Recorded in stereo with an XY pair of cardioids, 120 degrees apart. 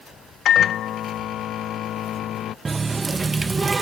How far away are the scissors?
No scissors in this recording.